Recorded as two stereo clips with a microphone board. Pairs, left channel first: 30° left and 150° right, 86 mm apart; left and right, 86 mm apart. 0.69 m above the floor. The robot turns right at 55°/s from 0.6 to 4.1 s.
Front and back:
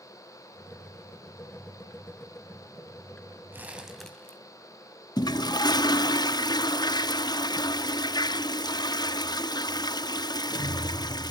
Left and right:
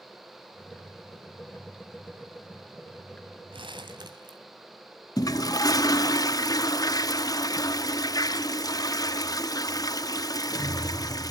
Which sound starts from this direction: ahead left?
A toilet flushing, at 5.2 s.